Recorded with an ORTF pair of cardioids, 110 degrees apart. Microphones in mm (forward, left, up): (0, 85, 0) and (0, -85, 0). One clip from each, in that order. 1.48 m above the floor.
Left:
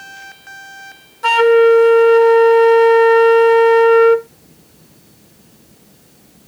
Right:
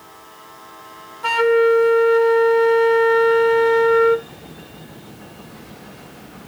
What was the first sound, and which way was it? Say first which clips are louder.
A flute: left 5 dB; 25° left.